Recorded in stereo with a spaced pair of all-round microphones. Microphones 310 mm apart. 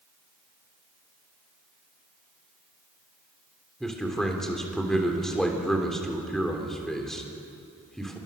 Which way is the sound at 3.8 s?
Centre (ahead or behind).